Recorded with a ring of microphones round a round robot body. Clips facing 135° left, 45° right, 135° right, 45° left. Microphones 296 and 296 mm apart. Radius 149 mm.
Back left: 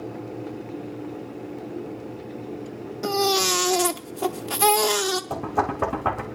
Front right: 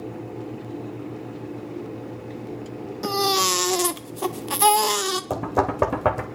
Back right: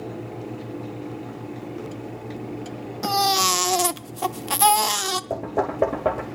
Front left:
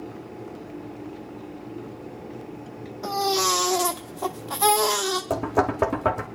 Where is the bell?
I don't hear a bell.